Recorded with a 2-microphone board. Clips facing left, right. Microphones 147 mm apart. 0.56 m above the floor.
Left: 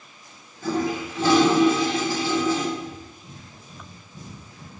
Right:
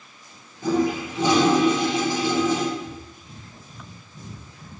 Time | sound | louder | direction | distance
0.6 | a toilet flushing | right 3 dB | 20° right (ahead or behind) | 1.5 m
2.8 | breathing | right 1 dB | 15° left (ahead or behind) | 2 m